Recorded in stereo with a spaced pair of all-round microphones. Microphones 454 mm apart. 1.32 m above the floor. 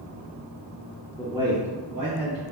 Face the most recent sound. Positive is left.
turn(degrees=-60)  # may be behind; listen again after turning